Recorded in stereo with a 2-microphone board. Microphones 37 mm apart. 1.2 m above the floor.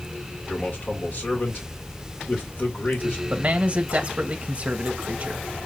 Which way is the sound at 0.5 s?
45° left (ahead or behind).